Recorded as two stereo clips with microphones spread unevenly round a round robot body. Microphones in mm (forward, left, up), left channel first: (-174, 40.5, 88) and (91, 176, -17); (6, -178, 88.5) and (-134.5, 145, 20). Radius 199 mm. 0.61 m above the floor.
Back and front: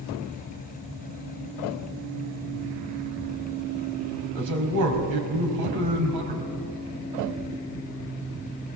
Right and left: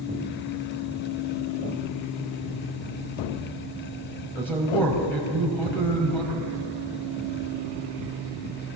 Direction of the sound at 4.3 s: 20° left.